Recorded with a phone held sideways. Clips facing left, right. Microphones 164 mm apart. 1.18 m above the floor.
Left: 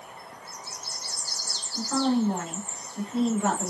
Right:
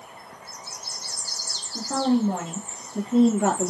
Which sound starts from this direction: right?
A woman speaking, at 1.8 s.